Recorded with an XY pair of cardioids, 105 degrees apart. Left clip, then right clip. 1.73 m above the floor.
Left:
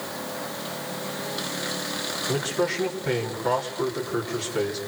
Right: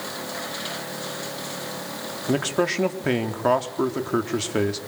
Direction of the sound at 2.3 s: 65° right.